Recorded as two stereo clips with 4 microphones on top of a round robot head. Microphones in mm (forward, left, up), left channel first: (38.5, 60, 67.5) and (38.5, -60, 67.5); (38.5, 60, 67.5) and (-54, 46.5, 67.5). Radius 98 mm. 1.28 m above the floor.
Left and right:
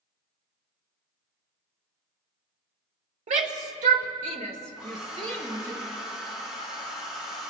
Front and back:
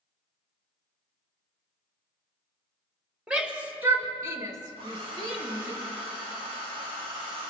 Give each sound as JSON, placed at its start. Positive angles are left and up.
{"t": 3.3, "sound": "a shout", "azimuth_deg": -90, "distance_m": 1.5}
{"t": 4.8, "sound": "a hair dryer", "azimuth_deg": -175, "distance_m": 2.5}